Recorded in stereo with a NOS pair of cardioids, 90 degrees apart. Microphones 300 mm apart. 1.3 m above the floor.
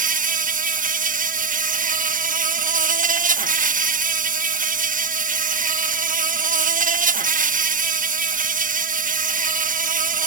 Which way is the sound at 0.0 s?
30° right.